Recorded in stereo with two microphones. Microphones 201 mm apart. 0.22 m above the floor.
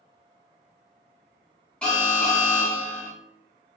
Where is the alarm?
5° left (ahead or behind), 2 m.